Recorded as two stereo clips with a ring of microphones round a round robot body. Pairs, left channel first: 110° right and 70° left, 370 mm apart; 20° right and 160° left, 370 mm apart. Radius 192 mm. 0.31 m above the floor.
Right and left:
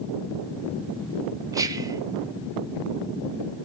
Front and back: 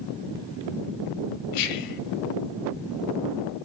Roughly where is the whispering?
Ahead.